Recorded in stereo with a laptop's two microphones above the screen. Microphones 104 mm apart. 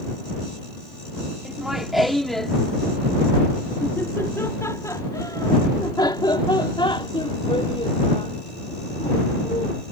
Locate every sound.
1.4 s laughter: 5° right (ahead or behind); by 9.8 s 75° left (ahead or behind)